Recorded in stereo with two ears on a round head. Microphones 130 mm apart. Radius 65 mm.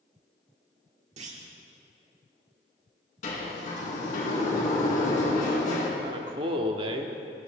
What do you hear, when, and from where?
1.2 s a clunk: 50° right (ahead or behind), 1.4 m
3.2 s a sliding door: 55° left (ahead or behind), 4 m
6.0 s a man speaking: 35° right (ahead or behind), 1.2 m